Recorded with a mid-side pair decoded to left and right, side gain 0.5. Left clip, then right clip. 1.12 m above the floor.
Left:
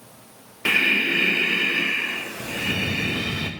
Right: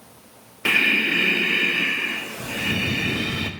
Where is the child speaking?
No child speaking in this recording.